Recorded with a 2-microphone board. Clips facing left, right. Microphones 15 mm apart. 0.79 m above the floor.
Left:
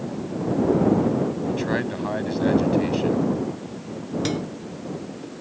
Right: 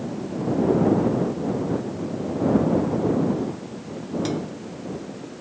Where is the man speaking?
75° left (ahead or behind).